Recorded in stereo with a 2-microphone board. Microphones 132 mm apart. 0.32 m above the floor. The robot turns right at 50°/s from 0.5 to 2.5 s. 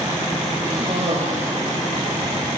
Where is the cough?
145° right, 8 m; by 1.5 s 105° right, 8 m.